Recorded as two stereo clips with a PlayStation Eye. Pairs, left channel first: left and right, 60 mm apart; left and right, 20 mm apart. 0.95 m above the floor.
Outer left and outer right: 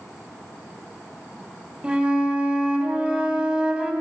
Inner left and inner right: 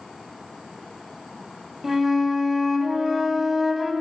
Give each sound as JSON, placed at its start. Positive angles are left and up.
{"t": 1.8, "sound": "a flute", "side_deg": -15, "distance_m": 3.0}